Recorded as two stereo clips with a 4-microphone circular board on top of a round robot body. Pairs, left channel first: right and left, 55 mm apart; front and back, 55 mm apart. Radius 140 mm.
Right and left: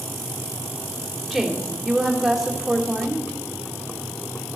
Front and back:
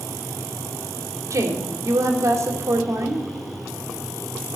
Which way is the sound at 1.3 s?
Straight behind.